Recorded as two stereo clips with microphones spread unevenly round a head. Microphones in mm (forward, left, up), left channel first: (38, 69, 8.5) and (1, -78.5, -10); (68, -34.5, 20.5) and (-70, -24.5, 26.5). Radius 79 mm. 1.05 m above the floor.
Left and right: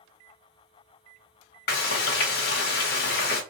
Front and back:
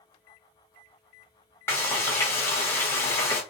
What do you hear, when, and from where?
1.7 s frying: 65° left, 1.0 m